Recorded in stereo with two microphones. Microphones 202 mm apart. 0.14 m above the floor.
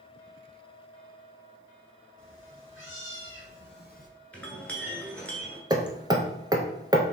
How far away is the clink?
About 1.1 m.